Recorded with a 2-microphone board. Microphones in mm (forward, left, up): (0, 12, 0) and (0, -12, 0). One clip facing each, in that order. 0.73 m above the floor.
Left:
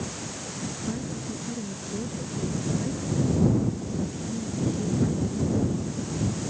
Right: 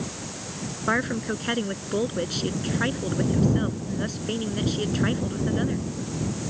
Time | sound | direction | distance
0.9 | a woman speaking | 80° right | ?